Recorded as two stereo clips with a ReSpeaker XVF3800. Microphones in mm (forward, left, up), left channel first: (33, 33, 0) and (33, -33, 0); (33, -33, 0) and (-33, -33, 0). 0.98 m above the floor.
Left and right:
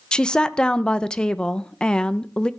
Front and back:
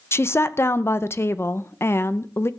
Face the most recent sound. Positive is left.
turn(degrees=15)